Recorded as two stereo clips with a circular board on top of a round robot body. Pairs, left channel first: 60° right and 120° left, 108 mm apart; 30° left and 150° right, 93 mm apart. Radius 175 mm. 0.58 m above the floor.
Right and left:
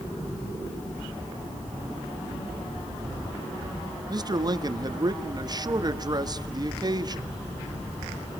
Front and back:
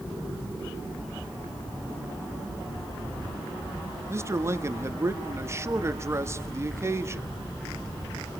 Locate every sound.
4.1 s a man speaking: 160° left, 1.5 m